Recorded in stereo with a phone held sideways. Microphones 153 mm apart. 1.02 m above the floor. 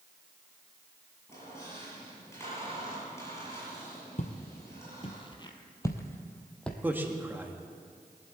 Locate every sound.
1.3 s a squeak: 15° left (ahead or behind), 7.5 m
4.2 s footsteps: 50° left (ahead or behind), 1.5 m; by 6.7 s 5° left (ahead or behind), 1.5 m
6.8 s a man speaking: 15° right (ahead or behind), 1.5 m